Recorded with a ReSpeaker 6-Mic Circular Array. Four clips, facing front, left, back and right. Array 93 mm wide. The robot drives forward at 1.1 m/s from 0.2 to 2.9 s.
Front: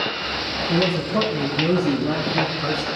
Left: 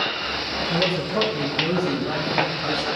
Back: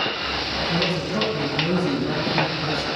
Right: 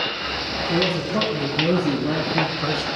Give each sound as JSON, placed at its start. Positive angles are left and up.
{"t": 0.7, "sound": "a man speaking", "azimuth_deg": -30, "distance_m": 3.5}